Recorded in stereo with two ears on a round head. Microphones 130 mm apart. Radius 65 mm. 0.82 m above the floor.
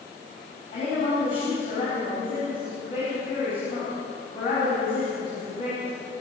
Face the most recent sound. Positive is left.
turn(degrees=40)  # may be behind; listen again after turning